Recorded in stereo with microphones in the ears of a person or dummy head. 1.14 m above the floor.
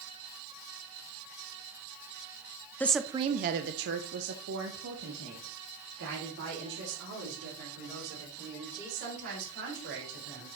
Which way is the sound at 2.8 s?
5° left (ahead or behind).